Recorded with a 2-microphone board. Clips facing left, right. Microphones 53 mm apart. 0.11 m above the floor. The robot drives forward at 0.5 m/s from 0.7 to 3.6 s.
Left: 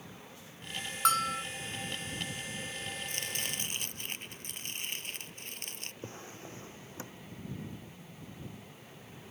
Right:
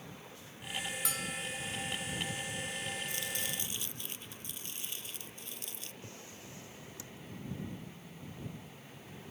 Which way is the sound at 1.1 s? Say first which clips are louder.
Left 11 dB; 60° left (ahead or behind).